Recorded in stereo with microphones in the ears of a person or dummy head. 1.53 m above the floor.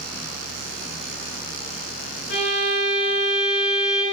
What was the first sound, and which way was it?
A fan, 10° left (ahead or behind).